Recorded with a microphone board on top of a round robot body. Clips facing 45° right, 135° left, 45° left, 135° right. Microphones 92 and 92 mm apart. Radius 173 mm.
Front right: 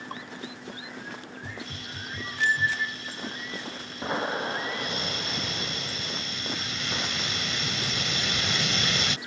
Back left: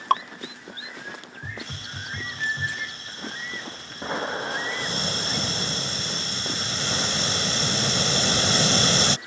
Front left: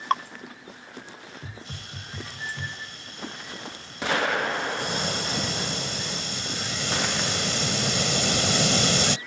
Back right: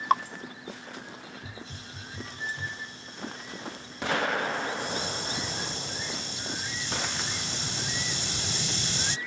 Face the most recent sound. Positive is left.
turn(degrees=75)